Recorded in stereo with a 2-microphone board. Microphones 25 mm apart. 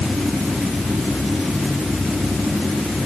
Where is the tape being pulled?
No tape being pulled in this recording.